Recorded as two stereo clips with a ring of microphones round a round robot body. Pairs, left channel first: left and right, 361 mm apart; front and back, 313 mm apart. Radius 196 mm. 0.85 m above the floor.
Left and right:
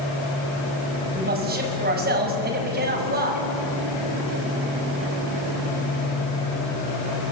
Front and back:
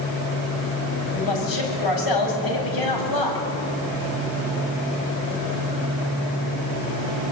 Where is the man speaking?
25° right, 6.5 m.